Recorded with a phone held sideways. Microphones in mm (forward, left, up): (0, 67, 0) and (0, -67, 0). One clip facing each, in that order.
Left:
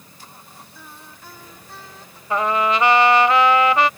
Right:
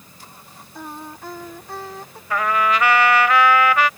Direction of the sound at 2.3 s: 25° left (ahead or behind).